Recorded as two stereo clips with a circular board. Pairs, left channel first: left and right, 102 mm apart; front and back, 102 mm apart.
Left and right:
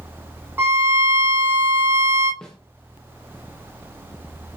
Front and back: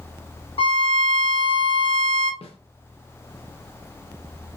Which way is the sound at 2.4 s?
5° left.